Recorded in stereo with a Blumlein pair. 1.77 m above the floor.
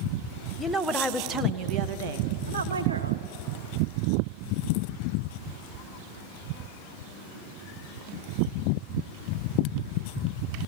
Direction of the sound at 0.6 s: 5° right.